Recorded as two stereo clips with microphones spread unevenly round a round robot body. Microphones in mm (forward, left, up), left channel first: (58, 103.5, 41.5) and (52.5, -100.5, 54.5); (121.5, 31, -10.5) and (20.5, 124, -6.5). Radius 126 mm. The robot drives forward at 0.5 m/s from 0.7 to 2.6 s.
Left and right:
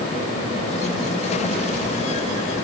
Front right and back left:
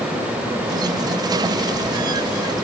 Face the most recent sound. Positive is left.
No sound to turn to.